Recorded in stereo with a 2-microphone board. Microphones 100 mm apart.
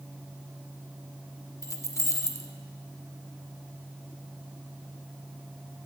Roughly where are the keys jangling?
Left.